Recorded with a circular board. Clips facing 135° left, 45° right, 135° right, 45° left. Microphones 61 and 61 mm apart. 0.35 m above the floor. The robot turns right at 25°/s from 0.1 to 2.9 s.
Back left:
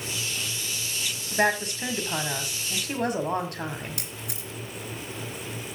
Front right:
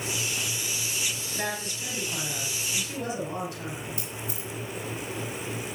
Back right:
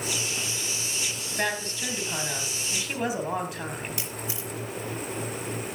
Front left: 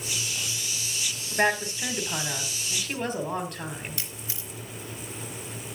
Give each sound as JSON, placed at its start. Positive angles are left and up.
{"t": 1.3, "sound": "a woman speaking", "azimuth_deg": 105, "distance_m": 1.9}
{"t": 4.0, "sound": "a camera shutter", "azimuth_deg": 155, "distance_m": 3.0}